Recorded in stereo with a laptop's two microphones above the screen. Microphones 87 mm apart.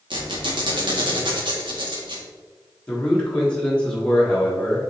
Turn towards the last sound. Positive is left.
turn(degrees=10)  # may be behind; listen again after turning